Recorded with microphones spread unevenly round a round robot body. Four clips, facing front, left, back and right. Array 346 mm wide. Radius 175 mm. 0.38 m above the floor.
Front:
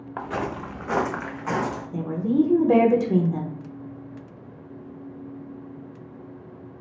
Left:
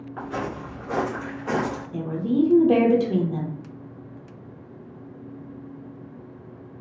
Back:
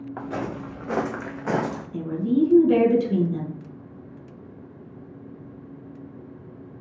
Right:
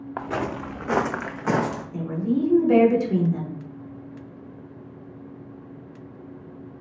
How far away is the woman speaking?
About 0.9 m.